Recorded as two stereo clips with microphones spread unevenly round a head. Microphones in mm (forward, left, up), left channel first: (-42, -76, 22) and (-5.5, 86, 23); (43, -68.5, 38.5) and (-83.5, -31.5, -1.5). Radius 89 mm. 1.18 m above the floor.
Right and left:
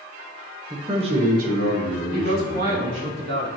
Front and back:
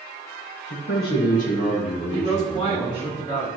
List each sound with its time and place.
0.7 s a man speaking: straight ahead, 0.9 m; by 3.1 s 60° left, 2.5 m
2.1 s a man speaking: 45° left, 2.0 m